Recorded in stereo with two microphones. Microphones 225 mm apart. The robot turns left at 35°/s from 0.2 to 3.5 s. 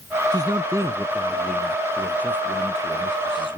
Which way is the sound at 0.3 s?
20° right (ahead or behind).